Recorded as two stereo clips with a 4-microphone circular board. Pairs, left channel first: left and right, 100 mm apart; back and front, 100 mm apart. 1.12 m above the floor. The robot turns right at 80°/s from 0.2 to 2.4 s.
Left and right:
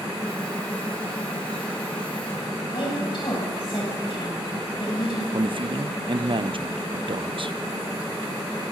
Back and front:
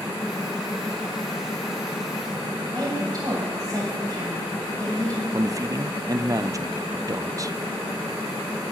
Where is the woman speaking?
55° left, 7.5 m.